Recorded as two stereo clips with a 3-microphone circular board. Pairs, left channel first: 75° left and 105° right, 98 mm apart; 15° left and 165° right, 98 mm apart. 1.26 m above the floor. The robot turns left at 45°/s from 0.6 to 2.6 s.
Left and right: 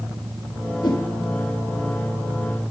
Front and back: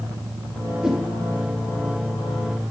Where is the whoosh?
110° left, 1.3 m; by 1.1 s 100° left, 1.3 m.